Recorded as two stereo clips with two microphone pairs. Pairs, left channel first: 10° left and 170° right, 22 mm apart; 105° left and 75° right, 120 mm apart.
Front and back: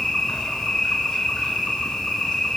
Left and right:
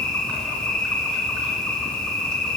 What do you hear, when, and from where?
0.0 s an insect: 25° left, 2.5 m